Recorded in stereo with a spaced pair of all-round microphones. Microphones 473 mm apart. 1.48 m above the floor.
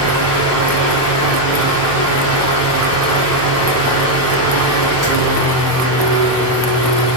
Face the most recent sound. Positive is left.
turn(degrees=30)  # may be behind; listen again after turning